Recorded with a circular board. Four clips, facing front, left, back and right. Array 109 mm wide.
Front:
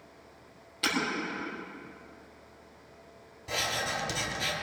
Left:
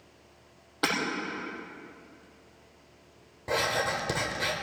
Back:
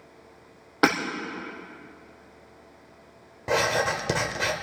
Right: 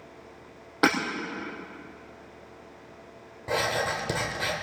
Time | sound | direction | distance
0.8 | hammering | 155° right | 5 m
3.5 | writing | straight behind | 1.6 m